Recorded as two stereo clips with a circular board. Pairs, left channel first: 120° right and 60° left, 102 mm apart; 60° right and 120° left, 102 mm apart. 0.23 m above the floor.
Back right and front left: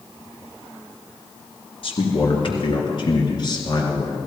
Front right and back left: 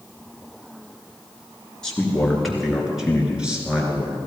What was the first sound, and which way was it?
A man speaking, 145° right.